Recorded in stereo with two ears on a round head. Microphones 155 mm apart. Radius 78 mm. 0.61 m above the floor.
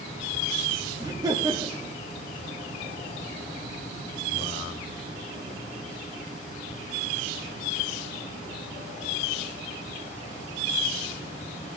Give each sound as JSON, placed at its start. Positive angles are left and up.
{"t": 1.0, "sound": "laughter", "side_deg": -20, "distance_m": 0.6}